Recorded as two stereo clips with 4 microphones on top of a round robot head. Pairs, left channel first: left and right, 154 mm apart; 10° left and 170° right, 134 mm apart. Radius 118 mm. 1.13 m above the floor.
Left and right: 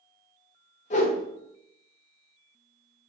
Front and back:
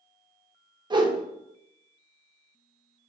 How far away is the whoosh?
About 0.8 m.